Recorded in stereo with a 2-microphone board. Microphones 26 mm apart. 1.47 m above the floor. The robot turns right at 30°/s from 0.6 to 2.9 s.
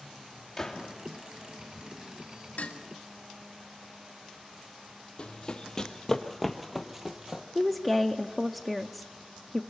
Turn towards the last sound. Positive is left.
turn(degrees=-10)  # may be behind; listen again after turning